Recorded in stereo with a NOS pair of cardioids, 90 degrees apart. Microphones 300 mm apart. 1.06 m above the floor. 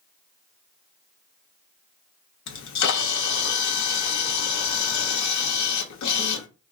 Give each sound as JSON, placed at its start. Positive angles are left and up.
{"t": 2.5, "sound": "a camera shutter", "azimuth_deg": 70, "distance_m": 0.9}